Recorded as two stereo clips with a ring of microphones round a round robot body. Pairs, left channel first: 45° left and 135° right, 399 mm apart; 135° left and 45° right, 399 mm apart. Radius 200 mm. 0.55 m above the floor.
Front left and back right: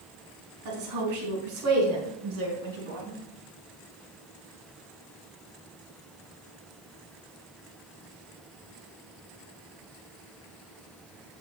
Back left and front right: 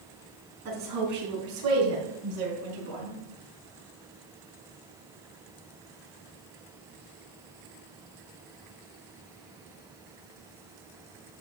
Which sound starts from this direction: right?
A woman speaking, at 0.7 s.